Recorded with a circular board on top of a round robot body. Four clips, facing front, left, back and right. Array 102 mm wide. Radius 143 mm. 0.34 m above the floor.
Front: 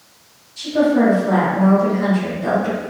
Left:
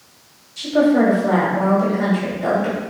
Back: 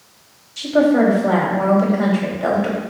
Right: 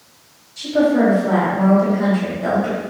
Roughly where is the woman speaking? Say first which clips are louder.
Even, back 1 dB; behind.